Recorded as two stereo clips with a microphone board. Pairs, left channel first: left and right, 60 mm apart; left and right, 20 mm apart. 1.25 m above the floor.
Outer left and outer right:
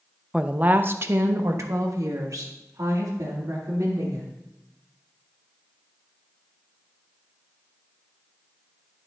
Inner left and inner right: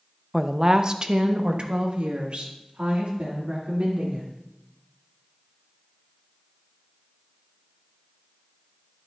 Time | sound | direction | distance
0.3 | a woman speaking | 10° right (ahead or behind) | 0.5 m